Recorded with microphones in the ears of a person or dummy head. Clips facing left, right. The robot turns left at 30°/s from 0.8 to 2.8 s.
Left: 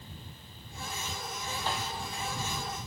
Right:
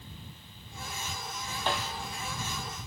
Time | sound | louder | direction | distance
1.7 | a snare drum | right 3 dB | 60° right (ahead or behind) | ?